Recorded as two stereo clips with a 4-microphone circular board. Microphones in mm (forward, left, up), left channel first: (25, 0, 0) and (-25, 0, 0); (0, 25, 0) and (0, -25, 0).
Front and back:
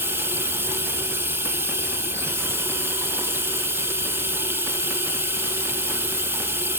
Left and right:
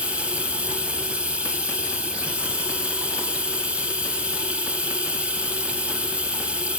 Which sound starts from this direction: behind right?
Running water, at 0.0 s.